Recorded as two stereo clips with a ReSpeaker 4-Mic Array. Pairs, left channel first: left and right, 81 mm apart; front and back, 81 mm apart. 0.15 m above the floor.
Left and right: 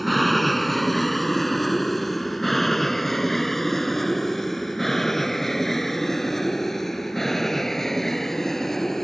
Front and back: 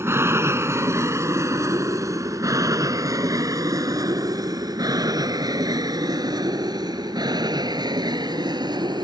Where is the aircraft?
Straight behind; by 9.1 s 175° left.